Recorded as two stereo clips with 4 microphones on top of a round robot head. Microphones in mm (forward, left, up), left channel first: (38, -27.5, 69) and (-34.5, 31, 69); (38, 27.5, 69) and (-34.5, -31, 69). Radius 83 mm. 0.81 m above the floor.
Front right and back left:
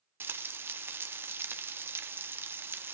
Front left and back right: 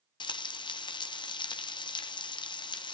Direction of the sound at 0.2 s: 75° left.